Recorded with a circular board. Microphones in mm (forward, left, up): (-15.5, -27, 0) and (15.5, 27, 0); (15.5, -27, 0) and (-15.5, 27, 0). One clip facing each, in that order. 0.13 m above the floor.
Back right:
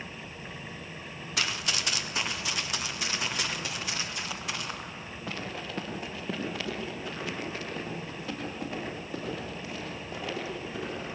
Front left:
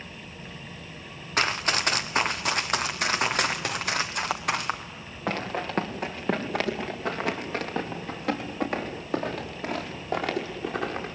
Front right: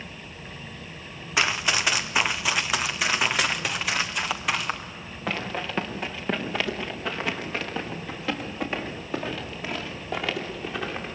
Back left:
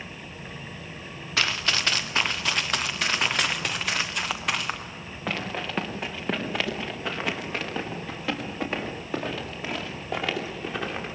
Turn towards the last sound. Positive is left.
turn(degrees=35)